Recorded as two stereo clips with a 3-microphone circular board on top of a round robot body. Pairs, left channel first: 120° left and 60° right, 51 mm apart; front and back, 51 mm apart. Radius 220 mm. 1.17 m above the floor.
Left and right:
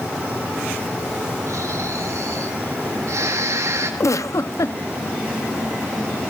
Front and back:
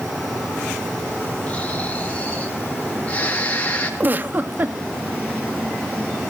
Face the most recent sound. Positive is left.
turn(degrees=130)